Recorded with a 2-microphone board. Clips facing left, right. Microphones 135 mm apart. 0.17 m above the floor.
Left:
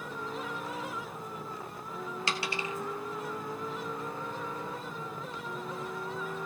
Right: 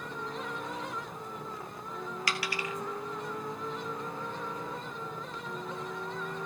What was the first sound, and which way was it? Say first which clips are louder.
A dropped coin: left 1 dB; 25° left (ahead or behind).